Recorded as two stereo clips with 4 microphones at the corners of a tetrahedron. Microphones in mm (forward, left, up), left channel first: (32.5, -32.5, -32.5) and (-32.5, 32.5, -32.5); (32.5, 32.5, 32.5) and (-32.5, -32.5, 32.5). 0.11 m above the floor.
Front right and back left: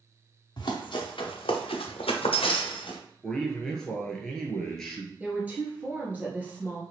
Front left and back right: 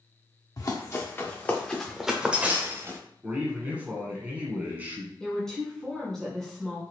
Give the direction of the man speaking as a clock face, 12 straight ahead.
4 o'clock.